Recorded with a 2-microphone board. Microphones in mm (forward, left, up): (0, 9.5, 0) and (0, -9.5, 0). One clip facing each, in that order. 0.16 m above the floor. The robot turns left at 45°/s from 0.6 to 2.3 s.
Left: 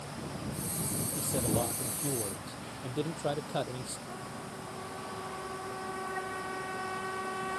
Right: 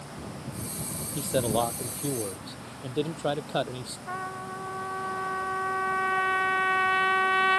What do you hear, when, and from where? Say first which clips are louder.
1.1 s a man speaking: right 7 dB; 95° right; by 4.0 s 150° right
4.1 s a trumpet: right 7 dB; 70° right (ahead or behind)